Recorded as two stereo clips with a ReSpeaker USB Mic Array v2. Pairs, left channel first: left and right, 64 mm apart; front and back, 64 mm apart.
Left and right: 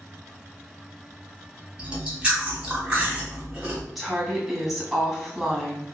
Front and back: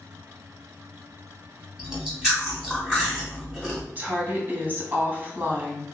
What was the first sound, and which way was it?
Chewing, 125° right.